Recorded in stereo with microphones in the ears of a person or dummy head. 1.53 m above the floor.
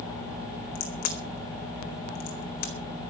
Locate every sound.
0.8 s a crack: 55° left (ahead or behind), 4 m